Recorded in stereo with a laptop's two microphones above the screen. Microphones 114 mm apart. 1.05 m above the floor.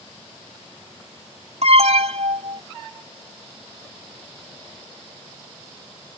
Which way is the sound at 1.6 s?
75° right (ahead or behind).